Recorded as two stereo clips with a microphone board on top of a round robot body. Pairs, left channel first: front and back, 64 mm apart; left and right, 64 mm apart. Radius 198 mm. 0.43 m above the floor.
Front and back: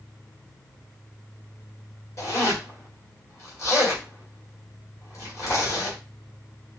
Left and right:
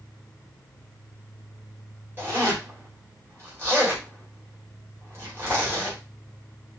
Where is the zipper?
35° right, 1.7 m.